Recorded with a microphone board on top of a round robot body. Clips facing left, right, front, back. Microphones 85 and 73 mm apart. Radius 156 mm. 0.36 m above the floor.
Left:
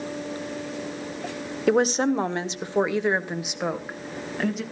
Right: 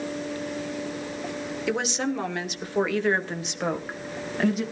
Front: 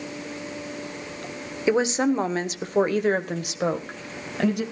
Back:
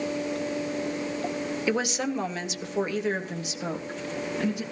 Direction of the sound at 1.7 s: 60° left.